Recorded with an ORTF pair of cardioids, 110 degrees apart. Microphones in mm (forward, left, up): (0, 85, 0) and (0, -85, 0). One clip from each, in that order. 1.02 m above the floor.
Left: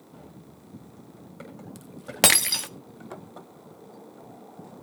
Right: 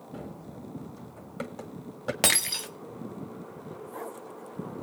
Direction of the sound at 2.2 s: 30° left.